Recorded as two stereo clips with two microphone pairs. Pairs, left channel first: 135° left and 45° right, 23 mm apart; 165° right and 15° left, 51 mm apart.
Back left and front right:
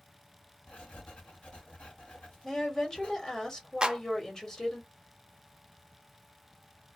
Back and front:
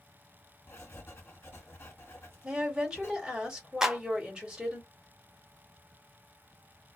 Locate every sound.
0.7 s writing: 160° left, 1.3 m
2.4 s a woman speaking: 90° left, 1.5 m
3.8 s a clap: 55° right, 0.5 m